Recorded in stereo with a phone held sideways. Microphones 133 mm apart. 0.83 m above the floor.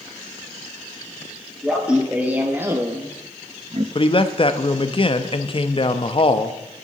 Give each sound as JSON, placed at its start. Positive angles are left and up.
{"t": 1.6, "sound": "laughter", "side_deg": -5, "distance_m": 1.5}
{"t": 4.0, "sound": "a man speaking", "side_deg": 40, "distance_m": 0.8}